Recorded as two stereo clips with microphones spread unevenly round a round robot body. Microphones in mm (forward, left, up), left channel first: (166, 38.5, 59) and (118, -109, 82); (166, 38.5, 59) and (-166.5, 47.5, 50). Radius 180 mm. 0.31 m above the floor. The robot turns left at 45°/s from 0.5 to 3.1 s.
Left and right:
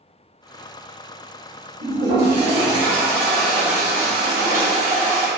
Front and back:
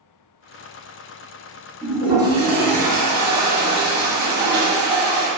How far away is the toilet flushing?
About 0.9 m.